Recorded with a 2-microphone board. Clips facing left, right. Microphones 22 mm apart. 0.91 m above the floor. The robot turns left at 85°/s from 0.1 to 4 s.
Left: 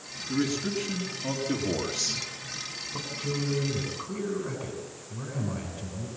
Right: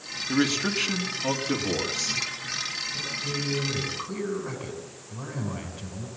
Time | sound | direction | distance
0.3 | a man speaking | 65° right | 2 m
2.9 | a man speaking | 65° left | 8 m